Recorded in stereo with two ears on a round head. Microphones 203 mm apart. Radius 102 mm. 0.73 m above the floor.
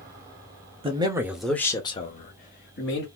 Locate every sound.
0.8 s a man speaking: 25° right (ahead or behind), 1.0 m; by 3.1 s 50° left (ahead or behind), 1.5 m